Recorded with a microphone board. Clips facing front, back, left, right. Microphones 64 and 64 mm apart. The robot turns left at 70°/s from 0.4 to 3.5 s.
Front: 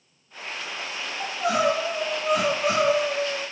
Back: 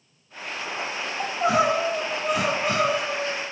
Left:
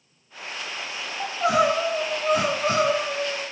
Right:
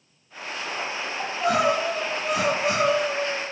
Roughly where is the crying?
Behind.